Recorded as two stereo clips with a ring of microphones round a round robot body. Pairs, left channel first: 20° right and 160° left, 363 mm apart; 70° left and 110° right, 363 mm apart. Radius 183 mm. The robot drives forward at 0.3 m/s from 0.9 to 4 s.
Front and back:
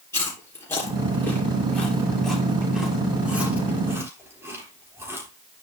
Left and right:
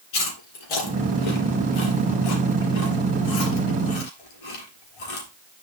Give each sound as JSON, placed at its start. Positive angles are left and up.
{"t": 0.1, "sound": "chewing", "azimuth_deg": 60, "distance_m": 3.5}